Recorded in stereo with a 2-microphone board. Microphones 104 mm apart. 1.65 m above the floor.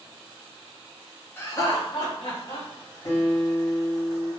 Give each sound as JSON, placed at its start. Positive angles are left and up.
{"t": 1.4, "sound": "laughter", "side_deg": 20, "distance_m": 0.6}
{"t": 3.0, "sound": "a guitar", "side_deg": 40, "distance_m": 1.7}